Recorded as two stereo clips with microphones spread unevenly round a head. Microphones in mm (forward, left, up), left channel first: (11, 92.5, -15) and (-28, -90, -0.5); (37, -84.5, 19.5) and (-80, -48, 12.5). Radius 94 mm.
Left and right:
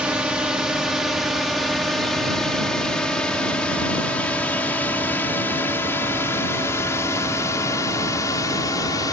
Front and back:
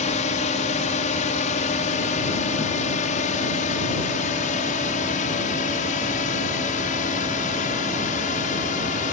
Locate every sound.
0.0 s a drone: 15° right; by 9.1 s 5° left